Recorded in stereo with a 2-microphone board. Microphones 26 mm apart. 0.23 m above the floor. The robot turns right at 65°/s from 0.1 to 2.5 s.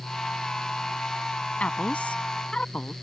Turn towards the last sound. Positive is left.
turn(degrees=125)